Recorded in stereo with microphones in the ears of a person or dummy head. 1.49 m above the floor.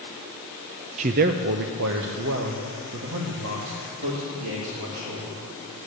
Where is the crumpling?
No crumpling in this recording.